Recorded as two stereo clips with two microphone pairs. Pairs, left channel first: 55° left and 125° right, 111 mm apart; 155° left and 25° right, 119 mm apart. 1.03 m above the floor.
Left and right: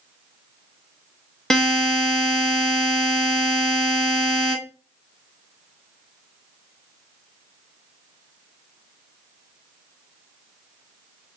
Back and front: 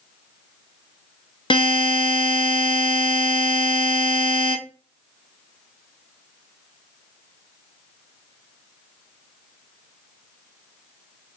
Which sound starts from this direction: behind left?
A buzzer, at 1.5 s.